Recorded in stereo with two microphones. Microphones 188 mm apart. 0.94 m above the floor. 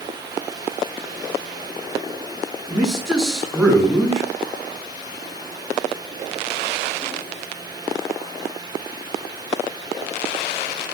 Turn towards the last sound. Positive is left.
turn(degrees=0)  # may be behind; listen again after turning